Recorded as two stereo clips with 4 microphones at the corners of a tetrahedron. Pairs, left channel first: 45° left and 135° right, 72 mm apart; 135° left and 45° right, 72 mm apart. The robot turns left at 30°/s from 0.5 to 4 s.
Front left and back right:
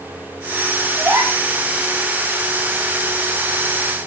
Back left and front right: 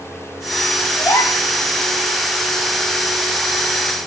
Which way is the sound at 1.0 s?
Straight behind.